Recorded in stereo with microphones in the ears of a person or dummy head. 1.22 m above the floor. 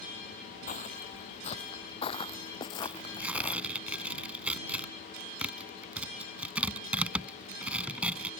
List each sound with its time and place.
0.7 s footsteps: 40° left (ahead or behind); by 3.6 s 20° left (ahead or behind)
2.8 s tearing paper: 5° right (ahead or behind)